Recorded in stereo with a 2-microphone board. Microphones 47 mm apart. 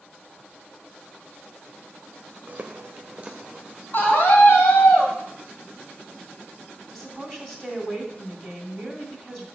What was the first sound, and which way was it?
Footsteps, 40° right (ahead or behind).